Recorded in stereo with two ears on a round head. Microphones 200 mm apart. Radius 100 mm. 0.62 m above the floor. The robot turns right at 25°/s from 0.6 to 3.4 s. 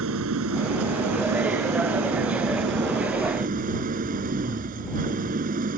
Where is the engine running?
110° right; by 5.8 s 40° right.